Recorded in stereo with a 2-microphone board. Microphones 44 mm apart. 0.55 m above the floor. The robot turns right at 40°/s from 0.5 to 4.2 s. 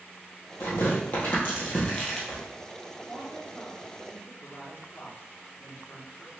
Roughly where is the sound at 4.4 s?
Left.